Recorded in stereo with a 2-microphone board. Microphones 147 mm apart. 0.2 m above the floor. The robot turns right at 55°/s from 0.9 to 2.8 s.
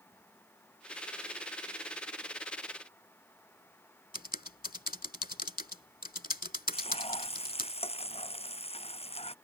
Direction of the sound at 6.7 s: 40° left (ahead or behind).